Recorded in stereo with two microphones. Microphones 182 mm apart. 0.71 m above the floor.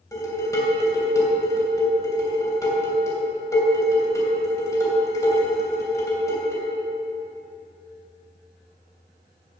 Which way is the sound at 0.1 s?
15° left (ahead or behind).